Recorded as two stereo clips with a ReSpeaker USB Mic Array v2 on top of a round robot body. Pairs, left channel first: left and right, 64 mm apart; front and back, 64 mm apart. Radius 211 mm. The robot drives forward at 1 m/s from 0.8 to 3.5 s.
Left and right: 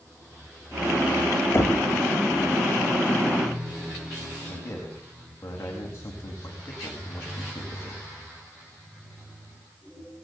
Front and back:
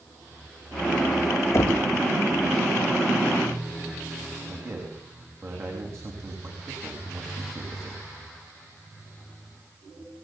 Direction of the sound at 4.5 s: 140° left.